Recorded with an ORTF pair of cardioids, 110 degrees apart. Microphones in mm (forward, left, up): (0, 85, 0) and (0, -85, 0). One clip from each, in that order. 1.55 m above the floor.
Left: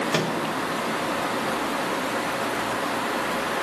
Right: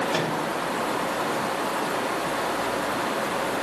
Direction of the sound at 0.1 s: 40° left.